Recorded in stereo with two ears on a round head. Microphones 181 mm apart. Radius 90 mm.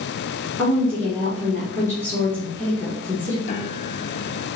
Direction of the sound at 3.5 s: 35° left (ahead or behind).